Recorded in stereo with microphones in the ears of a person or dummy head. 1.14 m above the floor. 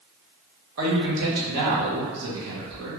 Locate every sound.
0.8 s a man speaking: 80° right, 1.0 m